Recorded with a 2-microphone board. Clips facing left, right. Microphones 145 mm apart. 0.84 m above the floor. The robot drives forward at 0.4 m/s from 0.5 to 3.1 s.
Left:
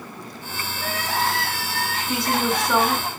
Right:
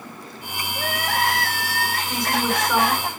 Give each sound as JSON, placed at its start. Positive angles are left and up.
{"t": 0.8, "sound": "crying", "side_deg": -60, "distance_m": 4.0}
{"t": 2.1, "sound": "a woman speaking", "side_deg": 5, "distance_m": 8.0}